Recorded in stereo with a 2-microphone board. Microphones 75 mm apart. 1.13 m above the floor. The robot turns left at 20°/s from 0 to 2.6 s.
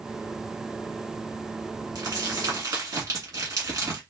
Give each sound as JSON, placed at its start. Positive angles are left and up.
{"t": 1.9, "sound": "crumpling", "side_deg": -65, "distance_m": 2.0}